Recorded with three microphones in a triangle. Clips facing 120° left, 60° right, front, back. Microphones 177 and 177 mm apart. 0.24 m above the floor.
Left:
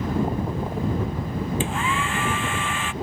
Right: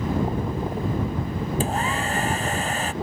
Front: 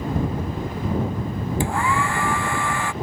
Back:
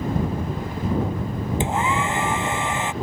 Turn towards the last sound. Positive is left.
turn(degrees=-110)